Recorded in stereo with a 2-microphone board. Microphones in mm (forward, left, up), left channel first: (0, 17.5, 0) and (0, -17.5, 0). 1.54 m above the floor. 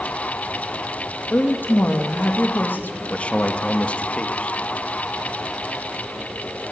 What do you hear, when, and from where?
1.3 s a woman speaking: 70° left (ahead or behind), 2.5 m
3.1 s a man speaking: 40° left (ahead or behind), 1.8 m